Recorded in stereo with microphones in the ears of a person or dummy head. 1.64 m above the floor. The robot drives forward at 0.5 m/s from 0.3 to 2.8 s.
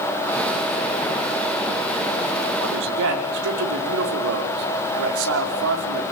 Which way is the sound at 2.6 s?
75° right (ahead or behind).